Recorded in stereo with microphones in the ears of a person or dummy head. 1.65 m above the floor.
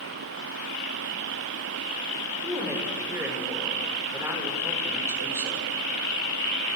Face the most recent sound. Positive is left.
turn(degrees=-15)  # may be behind; listen again after turning